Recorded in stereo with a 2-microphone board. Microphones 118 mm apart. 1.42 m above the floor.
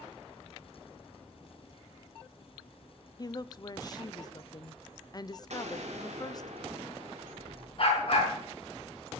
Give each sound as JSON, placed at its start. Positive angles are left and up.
{"t": 3.2, "sound": "a woman speaking", "side_deg": 35, "distance_m": 0.6}
{"t": 5.5, "sound": "an explosion", "side_deg": -70, "distance_m": 2.0}
{"t": 7.8, "sound": "a dog barking", "side_deg": 55, "distance_m": 5.5}